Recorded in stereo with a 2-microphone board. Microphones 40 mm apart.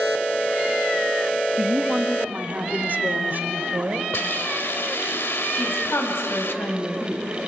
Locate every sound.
1.6 s a woman speaking: 20° right (ahead or behind), 0.8 m; by 4.0 s 50° right (ahead or behind), 2.5 m
4.1 s a hiss: 70° left (ahead or behind), 1.1 m
5.5 s a woman speaking: 75° left (ahead or behind), 4.5 m